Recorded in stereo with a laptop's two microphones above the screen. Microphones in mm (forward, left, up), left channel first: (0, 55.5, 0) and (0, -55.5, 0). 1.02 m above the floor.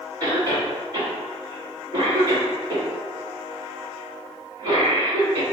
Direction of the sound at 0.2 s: 30° right (ahead or behind).